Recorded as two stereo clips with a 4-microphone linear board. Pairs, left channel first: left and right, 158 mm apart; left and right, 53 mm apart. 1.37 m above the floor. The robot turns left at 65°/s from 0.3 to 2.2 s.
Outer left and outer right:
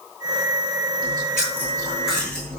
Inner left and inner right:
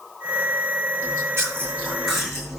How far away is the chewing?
About 9 m.